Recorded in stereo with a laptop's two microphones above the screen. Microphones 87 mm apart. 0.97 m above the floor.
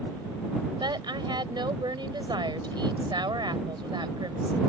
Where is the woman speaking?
60° right (ahead or behind).